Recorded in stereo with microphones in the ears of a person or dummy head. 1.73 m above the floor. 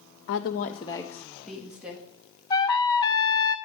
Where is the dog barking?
No dog barking in this recording.